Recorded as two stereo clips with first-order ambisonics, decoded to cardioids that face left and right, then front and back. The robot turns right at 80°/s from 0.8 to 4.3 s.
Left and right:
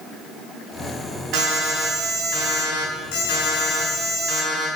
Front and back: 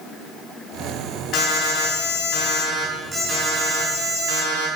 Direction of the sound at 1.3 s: 50° right.